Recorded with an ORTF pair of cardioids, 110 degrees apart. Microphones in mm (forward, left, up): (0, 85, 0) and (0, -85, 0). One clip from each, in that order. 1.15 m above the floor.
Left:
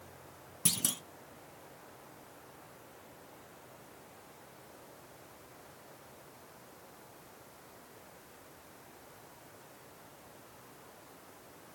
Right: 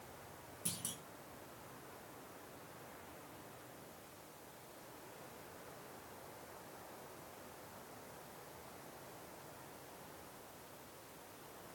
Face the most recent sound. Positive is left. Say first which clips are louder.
# left 13 dB
turn(degrees=65)